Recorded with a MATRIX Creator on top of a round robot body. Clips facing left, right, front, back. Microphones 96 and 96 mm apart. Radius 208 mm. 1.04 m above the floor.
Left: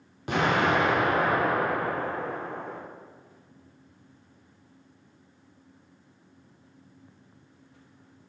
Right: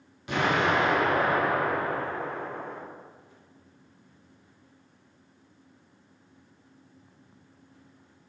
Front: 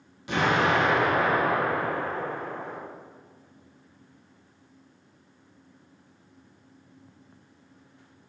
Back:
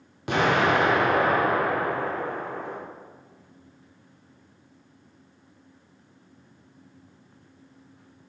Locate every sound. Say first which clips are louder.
0.3 s an explosion: left 1 dB, back 2 dB; 140° left, 1.7 m